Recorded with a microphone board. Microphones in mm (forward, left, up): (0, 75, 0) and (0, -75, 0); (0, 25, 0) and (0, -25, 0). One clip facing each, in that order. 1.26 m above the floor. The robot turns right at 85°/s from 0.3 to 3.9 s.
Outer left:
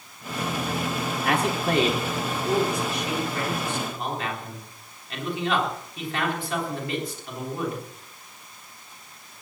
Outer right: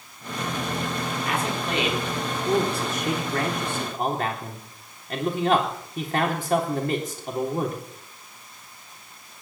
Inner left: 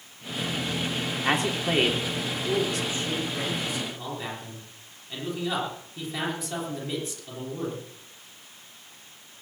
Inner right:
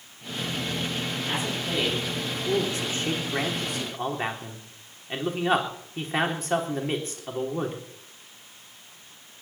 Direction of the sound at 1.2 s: 85° left.